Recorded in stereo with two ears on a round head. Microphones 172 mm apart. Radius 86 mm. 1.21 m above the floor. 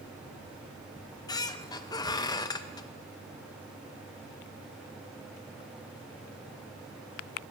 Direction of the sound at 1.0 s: 20° left (ahead or behind).